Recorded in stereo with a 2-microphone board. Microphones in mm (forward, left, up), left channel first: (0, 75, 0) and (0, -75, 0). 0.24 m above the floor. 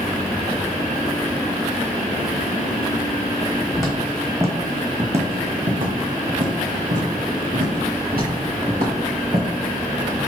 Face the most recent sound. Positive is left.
turn(degrees=-80)